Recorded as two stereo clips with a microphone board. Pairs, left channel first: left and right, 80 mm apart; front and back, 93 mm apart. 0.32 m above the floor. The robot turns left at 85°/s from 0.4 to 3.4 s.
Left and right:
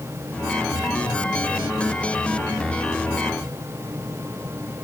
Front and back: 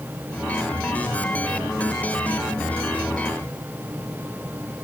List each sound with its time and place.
Only background noise.